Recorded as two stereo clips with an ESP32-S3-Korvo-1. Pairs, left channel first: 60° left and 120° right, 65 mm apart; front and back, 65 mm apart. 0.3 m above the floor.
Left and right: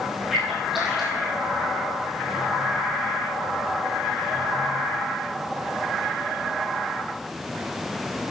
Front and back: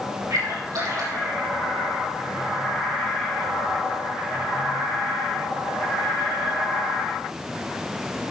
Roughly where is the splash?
Behind left.